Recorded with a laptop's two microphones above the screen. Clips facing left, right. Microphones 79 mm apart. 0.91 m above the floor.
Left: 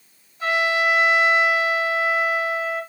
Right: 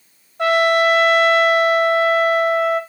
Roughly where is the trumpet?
Right.